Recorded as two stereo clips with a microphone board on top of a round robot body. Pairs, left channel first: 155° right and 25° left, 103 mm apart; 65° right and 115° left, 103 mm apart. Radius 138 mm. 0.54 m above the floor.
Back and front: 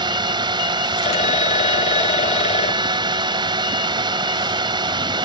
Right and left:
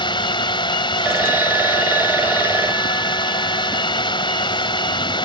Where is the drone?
25° right.